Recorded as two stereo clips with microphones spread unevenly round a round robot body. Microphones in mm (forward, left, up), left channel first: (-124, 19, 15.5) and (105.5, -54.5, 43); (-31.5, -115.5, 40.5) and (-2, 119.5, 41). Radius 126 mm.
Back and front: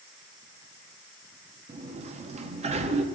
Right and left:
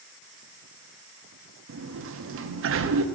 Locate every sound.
1.7 s a sliding door: 50° left, 0.8 m